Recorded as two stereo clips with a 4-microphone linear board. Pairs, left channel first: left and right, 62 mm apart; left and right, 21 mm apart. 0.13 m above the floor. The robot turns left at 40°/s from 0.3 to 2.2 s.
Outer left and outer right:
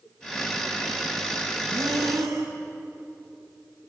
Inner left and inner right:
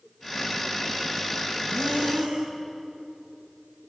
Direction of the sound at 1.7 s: 85° right.